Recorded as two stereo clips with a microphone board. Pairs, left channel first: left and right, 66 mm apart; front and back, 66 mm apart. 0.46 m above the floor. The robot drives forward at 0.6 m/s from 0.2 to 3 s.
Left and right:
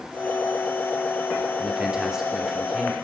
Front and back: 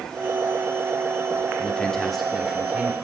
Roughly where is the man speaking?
Ahead right.